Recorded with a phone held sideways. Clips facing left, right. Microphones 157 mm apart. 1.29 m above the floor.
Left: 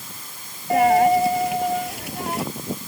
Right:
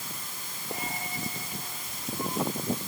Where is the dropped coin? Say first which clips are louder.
Left 23 dB; 75° left (ahead or behind).